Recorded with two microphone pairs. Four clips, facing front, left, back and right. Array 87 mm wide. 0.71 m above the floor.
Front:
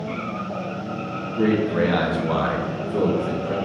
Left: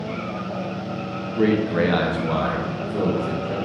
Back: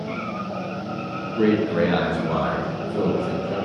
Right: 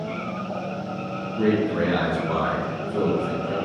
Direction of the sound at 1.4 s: 125° left.